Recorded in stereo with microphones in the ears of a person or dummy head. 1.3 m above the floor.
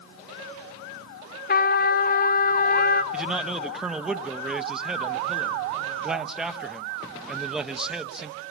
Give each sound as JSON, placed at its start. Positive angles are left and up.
{"t": 1.5, "sound": "a trumpet", "side_deg": 40, "distance_m": 1.1}
{"t": 3.1, "sound": "a man speaking", "side_deg": 0, "distance_m": 1.3}